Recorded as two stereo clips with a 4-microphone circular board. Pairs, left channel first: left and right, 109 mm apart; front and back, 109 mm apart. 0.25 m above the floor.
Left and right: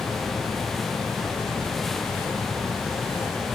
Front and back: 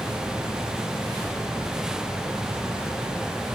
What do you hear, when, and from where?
Only background noise.